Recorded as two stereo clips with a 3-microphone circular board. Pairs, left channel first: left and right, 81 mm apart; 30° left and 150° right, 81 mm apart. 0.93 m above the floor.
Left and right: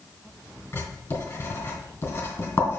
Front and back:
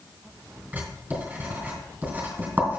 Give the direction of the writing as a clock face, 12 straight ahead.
7 o'clock.